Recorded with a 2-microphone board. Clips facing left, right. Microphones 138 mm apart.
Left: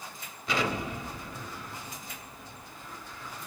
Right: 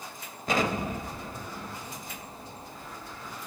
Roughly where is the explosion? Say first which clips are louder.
Right 3 dB; right.